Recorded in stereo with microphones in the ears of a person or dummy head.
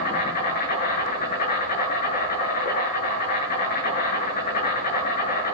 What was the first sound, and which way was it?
An insect, 50° left (ahead or behind).